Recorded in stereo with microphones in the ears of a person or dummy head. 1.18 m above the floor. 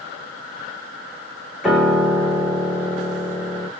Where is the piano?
Centre (ahead or behind), 1.1 m.